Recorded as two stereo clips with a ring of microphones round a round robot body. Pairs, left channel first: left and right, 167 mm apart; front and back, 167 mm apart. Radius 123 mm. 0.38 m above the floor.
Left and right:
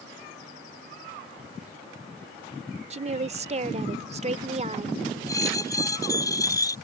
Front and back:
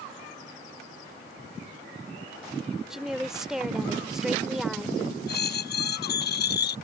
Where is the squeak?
20° left.